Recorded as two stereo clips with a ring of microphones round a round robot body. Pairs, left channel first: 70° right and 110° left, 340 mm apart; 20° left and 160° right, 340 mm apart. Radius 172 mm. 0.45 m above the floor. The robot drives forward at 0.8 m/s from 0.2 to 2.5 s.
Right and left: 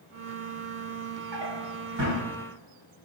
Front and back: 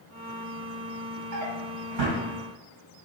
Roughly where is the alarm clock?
No alarm clock in this recording.